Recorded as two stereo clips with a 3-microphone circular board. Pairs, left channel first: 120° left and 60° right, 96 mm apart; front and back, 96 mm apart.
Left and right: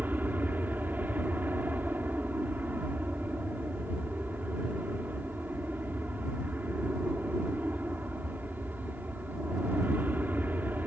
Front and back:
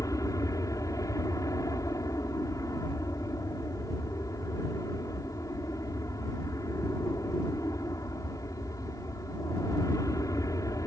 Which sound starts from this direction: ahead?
An aircraft, at 0.0 s.